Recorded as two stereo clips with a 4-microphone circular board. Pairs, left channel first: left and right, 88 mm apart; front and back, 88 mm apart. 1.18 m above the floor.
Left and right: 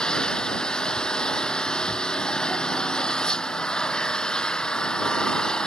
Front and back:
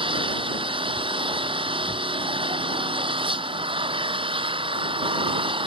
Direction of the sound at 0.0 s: 170° left.